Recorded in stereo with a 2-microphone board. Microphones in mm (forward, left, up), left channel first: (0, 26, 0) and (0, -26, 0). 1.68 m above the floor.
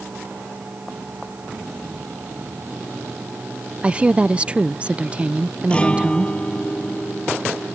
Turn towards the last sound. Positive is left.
turn(degrees=20)  # may be behind; listen again after turning